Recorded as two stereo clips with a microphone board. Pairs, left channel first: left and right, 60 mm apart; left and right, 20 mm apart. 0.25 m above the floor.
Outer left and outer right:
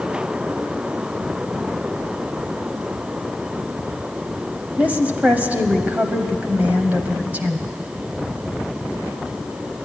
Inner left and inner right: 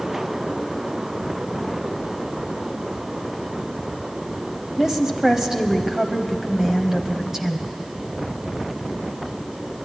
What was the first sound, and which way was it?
A woman speaking, 25° right (ahead or behind).